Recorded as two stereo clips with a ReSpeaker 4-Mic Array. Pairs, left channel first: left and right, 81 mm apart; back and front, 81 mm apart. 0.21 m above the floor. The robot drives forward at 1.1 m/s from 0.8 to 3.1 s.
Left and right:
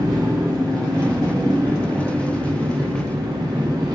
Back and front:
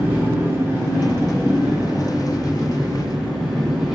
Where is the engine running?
65° right, 7 m; by 4.0 s 85° right, 6.5 m.